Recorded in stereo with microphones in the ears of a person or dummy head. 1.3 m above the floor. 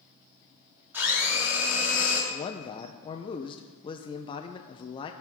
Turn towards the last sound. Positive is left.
turn(degrees=25)  # may be behind; listen again after turning